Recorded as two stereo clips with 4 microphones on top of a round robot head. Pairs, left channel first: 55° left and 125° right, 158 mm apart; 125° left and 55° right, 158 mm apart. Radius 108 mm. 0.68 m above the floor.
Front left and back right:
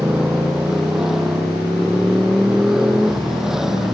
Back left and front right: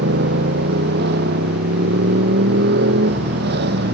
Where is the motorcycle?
40° right.